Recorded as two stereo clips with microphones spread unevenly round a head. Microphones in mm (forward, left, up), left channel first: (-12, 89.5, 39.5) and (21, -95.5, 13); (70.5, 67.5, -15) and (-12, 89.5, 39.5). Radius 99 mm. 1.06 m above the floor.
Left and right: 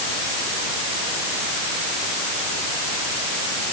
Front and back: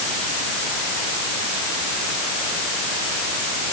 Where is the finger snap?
No finger snap in this recording.